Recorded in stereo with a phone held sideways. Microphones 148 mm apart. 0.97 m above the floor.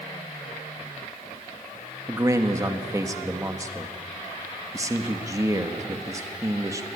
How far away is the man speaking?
About 1.6 m.